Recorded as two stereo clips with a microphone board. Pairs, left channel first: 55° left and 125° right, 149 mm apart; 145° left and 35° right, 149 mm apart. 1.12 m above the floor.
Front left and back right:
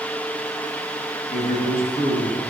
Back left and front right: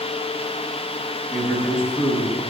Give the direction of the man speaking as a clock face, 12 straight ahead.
10 o'clock.